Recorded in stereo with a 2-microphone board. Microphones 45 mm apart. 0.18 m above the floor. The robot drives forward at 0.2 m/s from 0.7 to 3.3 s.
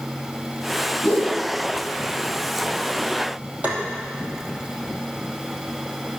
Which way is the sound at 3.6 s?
45° right (ahead or behind).